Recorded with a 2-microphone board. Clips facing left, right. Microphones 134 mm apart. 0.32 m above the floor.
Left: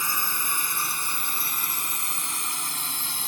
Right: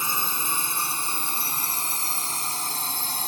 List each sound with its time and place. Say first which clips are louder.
0.0 s a drone: right 1 dB; 20° right (ahead or behind); by 3.3 s 40° right (ahead or behind)